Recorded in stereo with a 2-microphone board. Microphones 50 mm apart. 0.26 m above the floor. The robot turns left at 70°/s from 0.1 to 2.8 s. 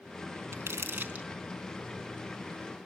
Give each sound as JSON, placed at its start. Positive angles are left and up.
{"t": 0.5, "sound": "crumpling", "side_deg": -60, "distance_m": 3.0}